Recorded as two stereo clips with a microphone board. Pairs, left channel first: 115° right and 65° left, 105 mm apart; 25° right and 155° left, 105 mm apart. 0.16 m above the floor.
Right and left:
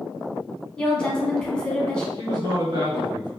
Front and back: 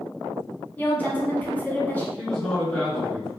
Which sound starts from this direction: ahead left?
A man speaking, at 2.2 s.